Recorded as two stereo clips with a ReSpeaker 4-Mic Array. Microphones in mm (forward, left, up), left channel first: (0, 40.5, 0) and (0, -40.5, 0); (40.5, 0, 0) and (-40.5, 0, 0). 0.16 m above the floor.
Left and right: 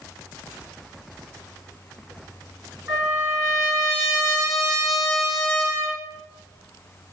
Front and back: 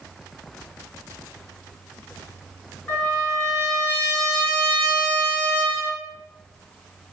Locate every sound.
2.9 s a trumpet: 70° right, 2 m